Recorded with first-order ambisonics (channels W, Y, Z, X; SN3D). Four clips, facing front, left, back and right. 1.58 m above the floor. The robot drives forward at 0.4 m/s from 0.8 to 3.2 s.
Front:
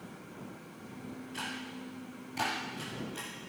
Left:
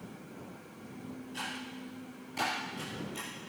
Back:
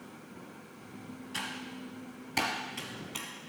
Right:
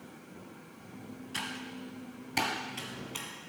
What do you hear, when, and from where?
1.3 s typing on a keyboard: 135° right, 3 m; by 3.3 s 145° right, 3.5 m